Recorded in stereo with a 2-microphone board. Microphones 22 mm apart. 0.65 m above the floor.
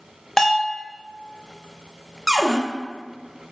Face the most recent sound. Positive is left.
turn(degrees=-20)  # may be behind; listen again after turning